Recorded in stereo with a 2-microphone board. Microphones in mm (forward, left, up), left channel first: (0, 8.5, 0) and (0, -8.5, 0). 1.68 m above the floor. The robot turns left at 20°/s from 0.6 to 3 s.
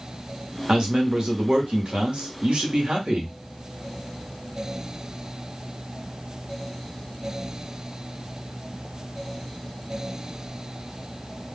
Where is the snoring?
No snoring in this recording.